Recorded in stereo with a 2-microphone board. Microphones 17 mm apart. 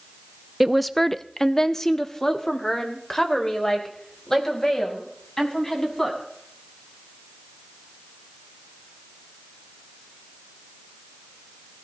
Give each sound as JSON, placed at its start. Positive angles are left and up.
{"t": 0.6, "sound": "a woman speaking", "side_deg": -10, "distance_m": 0.5}